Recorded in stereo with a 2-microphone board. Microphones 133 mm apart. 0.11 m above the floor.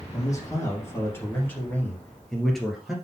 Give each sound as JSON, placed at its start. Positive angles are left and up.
{"t": 0.1, "sound": "a man speaking", "side_deg": 25, "distance_m": 3.5}